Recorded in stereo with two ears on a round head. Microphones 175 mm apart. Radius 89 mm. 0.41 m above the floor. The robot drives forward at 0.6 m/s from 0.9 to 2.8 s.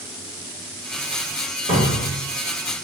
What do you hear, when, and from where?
1.7 s a cupboard door: 25° right (ahead or behind), 1.1 m; by 2.1 s 30° right (ahead or behind), 1.0 m